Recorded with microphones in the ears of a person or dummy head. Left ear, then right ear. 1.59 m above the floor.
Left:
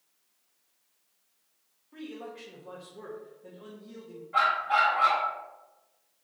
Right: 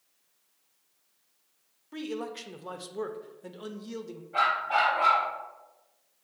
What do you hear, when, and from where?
1.9 s a man speaking: 80° right, 0.5 m
4.3 s a dog barking: 25° left (ahead or behind), 1.0 m